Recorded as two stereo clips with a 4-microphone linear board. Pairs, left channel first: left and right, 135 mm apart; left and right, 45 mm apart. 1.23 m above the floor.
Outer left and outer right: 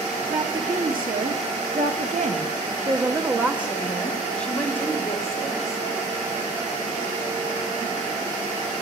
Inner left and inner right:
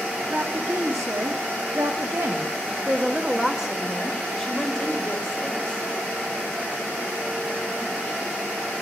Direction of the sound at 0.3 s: 80° right.